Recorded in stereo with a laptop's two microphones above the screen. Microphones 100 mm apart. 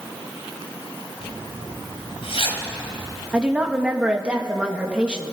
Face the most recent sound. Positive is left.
turn(degrees=-10)  # may be behind; listen again after turning